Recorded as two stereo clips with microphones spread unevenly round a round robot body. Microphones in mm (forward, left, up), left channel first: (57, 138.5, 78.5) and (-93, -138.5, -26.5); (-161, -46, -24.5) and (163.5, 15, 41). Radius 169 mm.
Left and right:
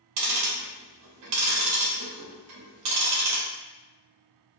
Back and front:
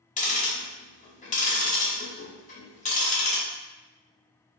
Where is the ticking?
105° right, 0.8 m.